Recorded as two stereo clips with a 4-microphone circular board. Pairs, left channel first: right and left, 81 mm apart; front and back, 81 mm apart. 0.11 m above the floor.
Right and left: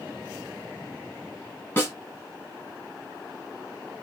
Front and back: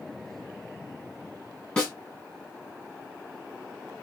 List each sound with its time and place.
1.8 s a snare drum: 65° right, 1.8 m